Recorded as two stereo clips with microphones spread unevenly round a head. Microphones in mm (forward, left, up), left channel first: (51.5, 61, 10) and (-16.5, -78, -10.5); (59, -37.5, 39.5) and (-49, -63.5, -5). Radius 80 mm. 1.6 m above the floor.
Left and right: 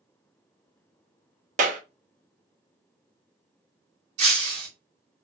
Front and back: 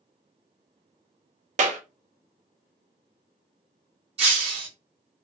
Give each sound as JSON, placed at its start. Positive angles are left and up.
{"t": 1.6, "sound": "a clap", "azimuth_deg": -150, "distance_m": 0.6}
{"t": 4.2, "sound": "breaking glass", "azimuth_deg": -135, "distance_m": 1.2}